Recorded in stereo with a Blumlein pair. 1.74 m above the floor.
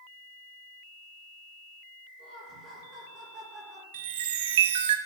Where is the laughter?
30° right, 5.5 m.